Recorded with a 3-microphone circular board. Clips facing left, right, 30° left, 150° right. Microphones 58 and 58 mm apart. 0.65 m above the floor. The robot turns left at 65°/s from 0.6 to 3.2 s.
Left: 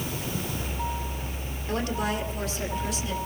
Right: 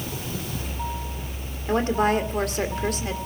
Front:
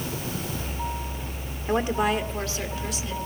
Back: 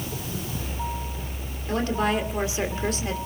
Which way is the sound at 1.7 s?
30° right.